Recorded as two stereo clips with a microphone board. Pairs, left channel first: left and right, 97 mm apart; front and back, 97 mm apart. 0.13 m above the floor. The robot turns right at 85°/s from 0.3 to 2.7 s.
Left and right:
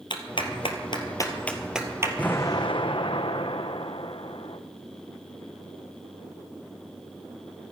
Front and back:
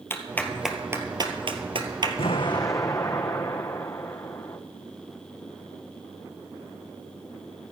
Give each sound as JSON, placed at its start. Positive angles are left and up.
{"t": 0.1, "sound": "a clap", "azimuth_deg": 65, "distance_m": 1.9}
{"t": 2.2, "sound": "an explosion", "azimuth_deg": 10, "distance_m": 1.3}